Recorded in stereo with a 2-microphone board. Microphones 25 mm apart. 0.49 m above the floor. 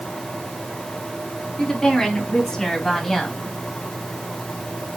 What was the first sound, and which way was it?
A woman speaking, 25° left (ahead or behind).